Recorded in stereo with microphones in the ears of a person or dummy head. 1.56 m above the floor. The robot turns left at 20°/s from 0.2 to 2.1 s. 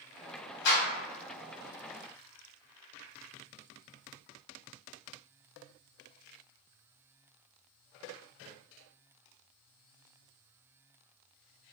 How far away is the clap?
About 1.3 m.